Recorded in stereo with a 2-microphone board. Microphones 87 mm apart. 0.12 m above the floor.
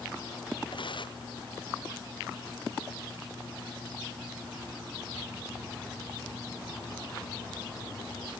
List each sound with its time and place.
0.7 s tearing paper: 65° left (ahead or behind)